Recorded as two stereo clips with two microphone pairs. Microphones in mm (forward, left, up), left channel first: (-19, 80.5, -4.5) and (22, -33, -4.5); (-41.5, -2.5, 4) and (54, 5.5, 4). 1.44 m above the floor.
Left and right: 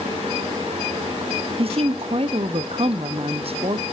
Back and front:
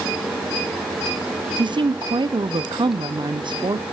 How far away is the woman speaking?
About 0.7 m.